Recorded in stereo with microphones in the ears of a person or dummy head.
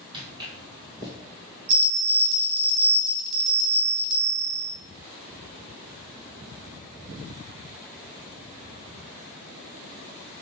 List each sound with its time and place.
0.1 s footsteps: 25° right (ahead or behind), 1.9 m; by 1.1 s 20° right (ahead or behind), 1.5 m
1.7 s a bell: 55° right (ahead or behind), 1.6 m